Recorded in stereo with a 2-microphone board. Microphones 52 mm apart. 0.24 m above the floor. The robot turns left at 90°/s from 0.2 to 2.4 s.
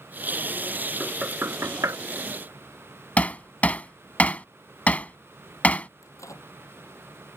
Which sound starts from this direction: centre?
Knocking, at 1.0 s.